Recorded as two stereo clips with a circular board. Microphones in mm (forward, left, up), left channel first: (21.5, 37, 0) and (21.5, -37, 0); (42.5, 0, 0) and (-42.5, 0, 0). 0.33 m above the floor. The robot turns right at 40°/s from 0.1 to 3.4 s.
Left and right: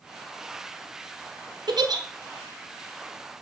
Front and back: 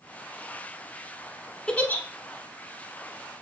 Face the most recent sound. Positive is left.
turn(degrees=-10)